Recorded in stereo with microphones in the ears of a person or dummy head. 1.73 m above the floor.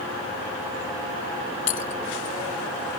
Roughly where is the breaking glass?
Left.